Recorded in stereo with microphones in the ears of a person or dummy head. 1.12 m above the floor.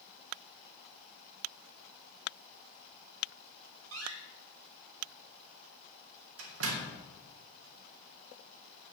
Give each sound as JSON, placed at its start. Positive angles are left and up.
{"t": 3.9, "sound": "a door slam", "side_deg": -85, "distance_m": 2.0}